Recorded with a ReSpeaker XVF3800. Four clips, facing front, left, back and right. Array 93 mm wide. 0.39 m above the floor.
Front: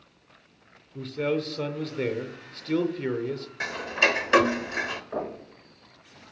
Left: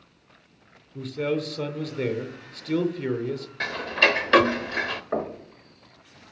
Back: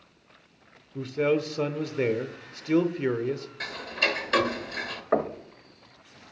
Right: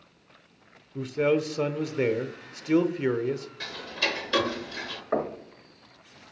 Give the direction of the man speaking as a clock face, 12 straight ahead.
4 o'clock.